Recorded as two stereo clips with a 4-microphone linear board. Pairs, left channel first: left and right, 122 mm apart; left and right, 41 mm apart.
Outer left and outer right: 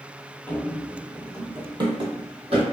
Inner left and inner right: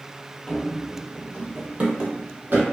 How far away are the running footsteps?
About 0.7 m.